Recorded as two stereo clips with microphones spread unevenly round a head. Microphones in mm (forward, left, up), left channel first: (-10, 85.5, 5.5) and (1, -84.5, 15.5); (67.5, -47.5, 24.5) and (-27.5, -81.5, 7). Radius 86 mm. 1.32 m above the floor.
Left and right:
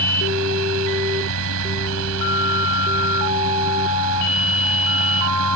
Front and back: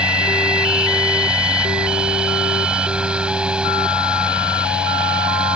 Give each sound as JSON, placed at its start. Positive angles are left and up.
{"t": 0.0, "sound": "a fan", "azimuth_deg": -80}